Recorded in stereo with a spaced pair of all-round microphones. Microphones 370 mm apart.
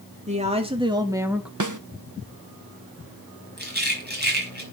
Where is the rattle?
25° right (ahead or behind), 5 m.